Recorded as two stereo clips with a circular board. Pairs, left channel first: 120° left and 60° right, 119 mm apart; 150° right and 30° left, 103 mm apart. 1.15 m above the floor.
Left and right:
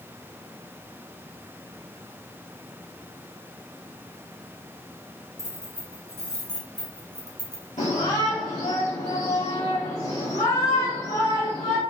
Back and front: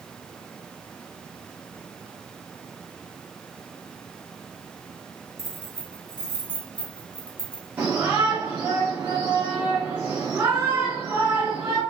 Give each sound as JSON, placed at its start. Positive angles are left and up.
{"t": 5.4, "sound": "keys jangling", "azimuth_deg": 180, "distance_m": 2.5}
{"t": 7.8, "sound": "a shout", "azimuth_deg": 105, "distance_m": 3.5}